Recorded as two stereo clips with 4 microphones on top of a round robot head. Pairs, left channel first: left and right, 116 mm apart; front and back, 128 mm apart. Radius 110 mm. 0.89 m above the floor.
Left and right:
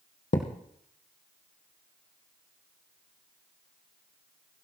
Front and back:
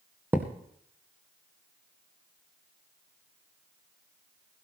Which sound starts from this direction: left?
A thud, at 0.3 s.